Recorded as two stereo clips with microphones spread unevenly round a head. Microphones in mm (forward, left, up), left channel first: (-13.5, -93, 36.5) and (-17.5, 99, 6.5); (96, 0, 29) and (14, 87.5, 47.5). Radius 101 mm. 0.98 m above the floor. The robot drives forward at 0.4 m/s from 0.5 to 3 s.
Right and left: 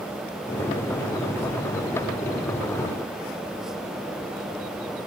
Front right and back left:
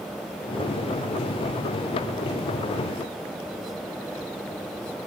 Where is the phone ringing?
I don't hear a phone ringing.